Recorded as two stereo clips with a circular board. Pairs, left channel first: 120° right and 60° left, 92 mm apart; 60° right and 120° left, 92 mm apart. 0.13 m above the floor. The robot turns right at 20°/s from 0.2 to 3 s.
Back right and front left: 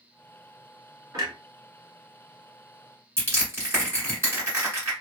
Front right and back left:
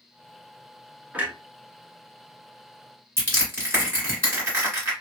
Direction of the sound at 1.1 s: 55° left.